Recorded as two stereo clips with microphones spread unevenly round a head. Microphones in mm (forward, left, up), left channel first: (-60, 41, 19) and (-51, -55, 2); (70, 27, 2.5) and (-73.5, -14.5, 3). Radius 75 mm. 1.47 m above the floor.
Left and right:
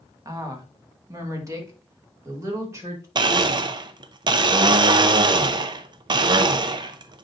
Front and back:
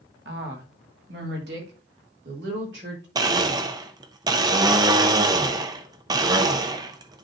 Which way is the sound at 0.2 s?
140° right.